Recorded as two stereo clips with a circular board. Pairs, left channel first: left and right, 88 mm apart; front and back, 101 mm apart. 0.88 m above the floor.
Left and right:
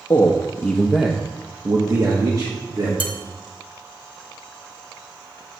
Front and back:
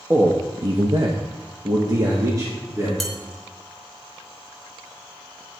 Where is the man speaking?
120° left, 0.9 m; by 2.9 s 125° right, 1.9 m.